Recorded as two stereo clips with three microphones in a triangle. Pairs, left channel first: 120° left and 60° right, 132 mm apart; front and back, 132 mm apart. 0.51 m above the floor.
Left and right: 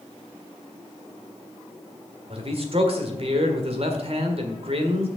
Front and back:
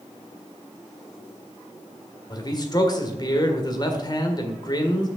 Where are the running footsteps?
I don't hear running footsteps.